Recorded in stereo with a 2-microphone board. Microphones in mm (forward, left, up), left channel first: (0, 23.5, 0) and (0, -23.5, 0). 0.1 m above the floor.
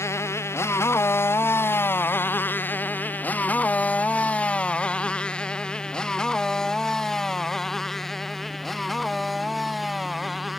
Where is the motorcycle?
75° left (ahead or behind); by 10.6 s centre (ahead or behind).